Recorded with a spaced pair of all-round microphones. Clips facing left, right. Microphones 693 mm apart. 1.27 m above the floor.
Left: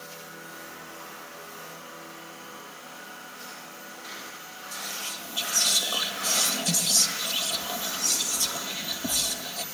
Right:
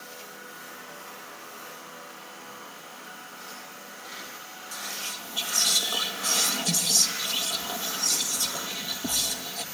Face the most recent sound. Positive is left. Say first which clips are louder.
# left 1 dB
turn(degrees=5)  # may be behind; listen again after turning